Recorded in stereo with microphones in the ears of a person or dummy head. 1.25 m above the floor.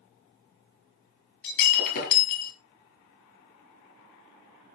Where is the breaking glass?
50° left (ahead or behind), 6.5 m.